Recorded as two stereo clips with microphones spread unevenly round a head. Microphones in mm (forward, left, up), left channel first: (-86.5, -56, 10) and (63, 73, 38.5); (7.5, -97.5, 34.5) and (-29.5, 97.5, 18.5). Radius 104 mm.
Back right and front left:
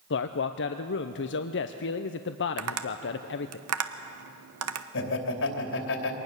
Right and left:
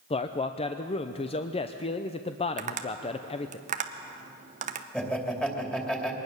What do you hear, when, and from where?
0.1 s a man speaking: 140° right, 0.7 m
2.6 s tapping: 45° left, 1.1 m
4.9 s laughter: 165° right, 3 m